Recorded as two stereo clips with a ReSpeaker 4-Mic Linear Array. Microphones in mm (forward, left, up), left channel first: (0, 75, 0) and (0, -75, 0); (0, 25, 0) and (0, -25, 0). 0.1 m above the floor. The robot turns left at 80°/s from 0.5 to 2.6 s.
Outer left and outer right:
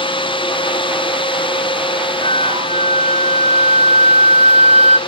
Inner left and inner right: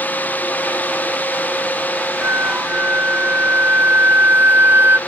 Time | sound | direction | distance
2.2 | a flute | 100° right | ?